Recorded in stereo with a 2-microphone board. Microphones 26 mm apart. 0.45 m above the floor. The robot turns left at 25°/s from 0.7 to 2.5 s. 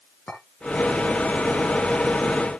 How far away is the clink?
About 4 m.